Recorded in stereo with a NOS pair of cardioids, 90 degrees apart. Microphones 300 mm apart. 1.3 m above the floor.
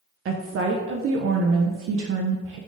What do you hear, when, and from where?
0.2 s a woman speaking: 45° right, 0.5 m